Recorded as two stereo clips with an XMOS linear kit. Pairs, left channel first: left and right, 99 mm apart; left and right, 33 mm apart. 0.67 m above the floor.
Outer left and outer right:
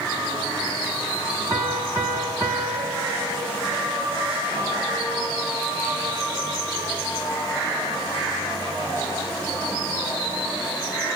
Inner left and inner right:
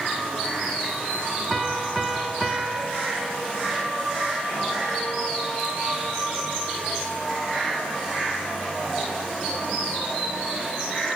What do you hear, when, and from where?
1.5 s a piano: 30° right (ahead or behind), 3.5 m